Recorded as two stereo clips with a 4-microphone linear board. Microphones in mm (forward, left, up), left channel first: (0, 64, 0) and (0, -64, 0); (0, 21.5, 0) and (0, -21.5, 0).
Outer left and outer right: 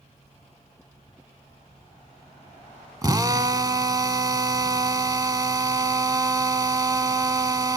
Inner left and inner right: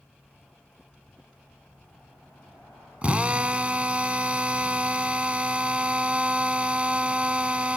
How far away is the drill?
About 0.8 m.